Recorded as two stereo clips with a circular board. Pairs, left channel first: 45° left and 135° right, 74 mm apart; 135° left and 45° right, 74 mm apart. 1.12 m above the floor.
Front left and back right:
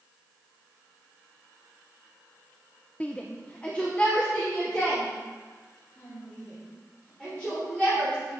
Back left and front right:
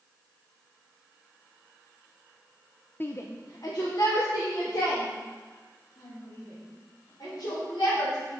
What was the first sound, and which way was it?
A shout, 100° left.